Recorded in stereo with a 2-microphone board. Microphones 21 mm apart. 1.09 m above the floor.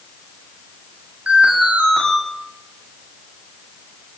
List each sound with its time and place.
1.3 s an alarm: 75° right (ahead or behind), 8.5 m